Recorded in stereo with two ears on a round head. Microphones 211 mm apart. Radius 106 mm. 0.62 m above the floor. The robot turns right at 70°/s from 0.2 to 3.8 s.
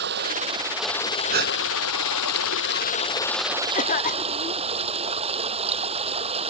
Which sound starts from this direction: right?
A gasp, at 1.3 s.